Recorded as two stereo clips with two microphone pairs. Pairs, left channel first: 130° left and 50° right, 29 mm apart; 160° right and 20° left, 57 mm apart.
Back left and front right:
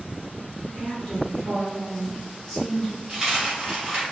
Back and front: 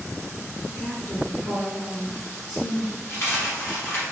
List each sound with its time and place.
0.7 s a woman speaking: 145° right, 1.6 m
3.1 s a dropped coin: 115° right, 1.7 m